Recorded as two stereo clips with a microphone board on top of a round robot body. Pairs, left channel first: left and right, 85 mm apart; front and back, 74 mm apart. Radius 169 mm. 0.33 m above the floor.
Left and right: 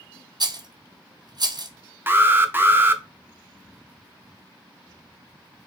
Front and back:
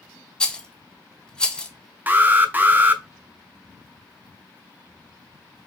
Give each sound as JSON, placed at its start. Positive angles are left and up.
{"t": 0.4, "sound": "a rattle", "azimuth_deg": -75, "distance_m": 0.9}
{"t": 2.1, "sound": "an alarm", "azimuth_deg": -135, "distance_m": 0.8}